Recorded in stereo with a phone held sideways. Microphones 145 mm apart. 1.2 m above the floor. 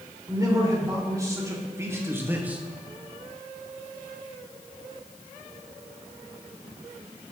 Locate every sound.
0.3 s a man speaking: 25° right (ahead or behind), 4.5 m; by 2.6 s 10° right (ahead or behind), 1.2 m